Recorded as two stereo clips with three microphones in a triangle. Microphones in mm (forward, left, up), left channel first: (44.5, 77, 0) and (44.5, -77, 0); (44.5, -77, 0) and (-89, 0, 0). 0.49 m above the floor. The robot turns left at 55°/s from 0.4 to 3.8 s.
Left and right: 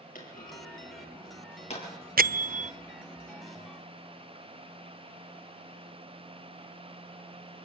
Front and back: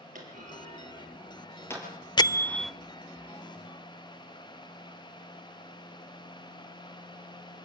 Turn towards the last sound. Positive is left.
turn(degrees=180)